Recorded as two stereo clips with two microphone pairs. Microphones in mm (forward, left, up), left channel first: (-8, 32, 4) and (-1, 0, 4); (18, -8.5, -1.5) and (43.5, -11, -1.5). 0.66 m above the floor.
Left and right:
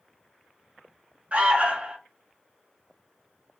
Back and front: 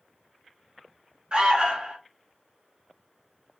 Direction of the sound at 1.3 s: 50° right.